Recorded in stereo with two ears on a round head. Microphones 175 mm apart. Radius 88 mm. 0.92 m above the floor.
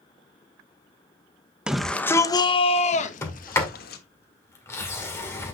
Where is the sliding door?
15° left (ahead or behind), 1.8 m.